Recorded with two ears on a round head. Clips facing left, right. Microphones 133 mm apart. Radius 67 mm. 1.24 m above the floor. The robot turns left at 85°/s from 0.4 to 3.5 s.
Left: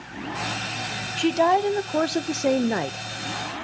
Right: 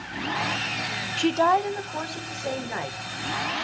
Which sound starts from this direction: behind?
A woman speaking, at 1.2 s.